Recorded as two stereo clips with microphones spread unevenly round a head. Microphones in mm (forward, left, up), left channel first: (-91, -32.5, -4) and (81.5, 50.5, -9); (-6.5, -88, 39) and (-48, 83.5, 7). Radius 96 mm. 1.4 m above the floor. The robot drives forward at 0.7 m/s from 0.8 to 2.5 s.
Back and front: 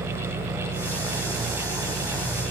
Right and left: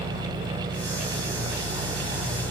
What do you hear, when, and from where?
0.0 s an engine running: 80° left, 7.5 m; by 2.5 s 90° left, 7 m